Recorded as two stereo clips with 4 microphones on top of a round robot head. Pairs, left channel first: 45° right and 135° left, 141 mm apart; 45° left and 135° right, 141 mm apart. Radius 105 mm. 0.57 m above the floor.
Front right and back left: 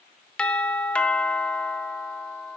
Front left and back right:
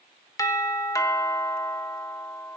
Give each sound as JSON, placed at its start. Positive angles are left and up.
{"t": 0.4, "sound": "a doorbell", "azimuth_deg": 25, "distance_m": 1.2}